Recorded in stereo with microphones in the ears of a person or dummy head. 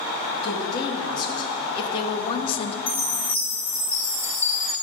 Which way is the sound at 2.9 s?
10° left (ahead or behind).